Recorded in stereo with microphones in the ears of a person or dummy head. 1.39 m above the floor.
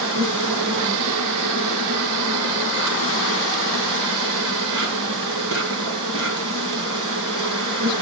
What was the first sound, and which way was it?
An insect, 70° right (ahead or behind).